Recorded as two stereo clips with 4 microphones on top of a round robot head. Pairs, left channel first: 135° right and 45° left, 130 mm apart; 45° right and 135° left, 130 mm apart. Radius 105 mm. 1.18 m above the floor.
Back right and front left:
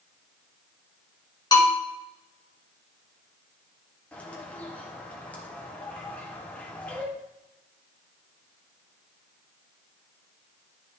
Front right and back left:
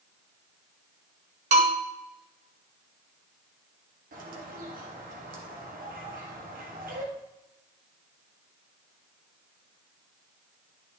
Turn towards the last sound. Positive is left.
turn(degrees=145)